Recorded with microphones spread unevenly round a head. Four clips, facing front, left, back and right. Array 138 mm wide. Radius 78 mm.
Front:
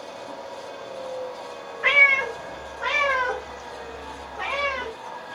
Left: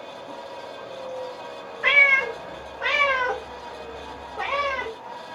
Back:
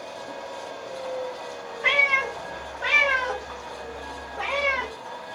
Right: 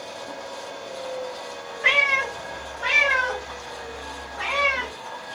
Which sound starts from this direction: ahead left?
A cat meowing, at 1.8 s.